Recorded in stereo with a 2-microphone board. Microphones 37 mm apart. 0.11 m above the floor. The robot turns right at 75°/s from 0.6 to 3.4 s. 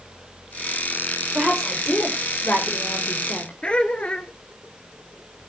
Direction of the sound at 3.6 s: 30° left (ahead or behind).